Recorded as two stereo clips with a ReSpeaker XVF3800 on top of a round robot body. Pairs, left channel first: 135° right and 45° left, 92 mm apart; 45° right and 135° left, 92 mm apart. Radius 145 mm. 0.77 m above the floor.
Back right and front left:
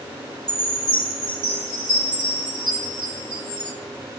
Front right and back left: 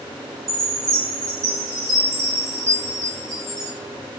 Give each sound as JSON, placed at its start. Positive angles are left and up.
{"t": 0.5, "sound": "a chime", "azimuth_deg": 80, "distance_m": 6.0}